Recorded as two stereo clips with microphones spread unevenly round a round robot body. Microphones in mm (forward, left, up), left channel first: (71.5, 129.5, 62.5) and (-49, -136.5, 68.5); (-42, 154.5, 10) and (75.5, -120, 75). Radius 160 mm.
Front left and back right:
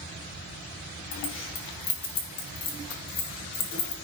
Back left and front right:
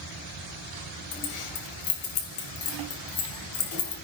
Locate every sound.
1.1 s keys jangling: 115° left, 2 m